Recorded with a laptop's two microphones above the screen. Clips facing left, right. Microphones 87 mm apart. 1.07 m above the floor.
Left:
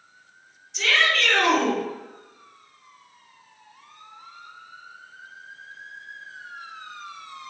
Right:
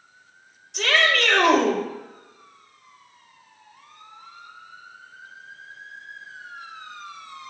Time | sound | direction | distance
0.7 | a shout | 65° right (ahead or behind) | 6.5 m